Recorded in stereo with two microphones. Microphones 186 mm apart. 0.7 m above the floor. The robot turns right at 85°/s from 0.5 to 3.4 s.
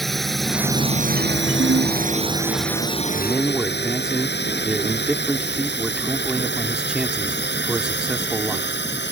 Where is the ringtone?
120° right; by 2.0 s 85° right.